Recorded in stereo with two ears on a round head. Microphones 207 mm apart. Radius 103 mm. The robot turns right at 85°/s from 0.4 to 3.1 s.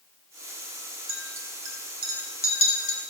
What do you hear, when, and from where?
1.1 s a clink: 75° right (ahead or behind), 6 m; by 3.0 s 60° left (ahead or behind), 6 m